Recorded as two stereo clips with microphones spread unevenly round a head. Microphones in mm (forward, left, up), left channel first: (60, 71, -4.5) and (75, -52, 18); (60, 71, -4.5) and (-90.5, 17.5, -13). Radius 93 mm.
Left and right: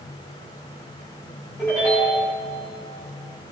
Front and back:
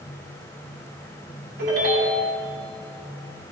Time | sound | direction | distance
1.6 | a ringtone | 175° left | 5.5 m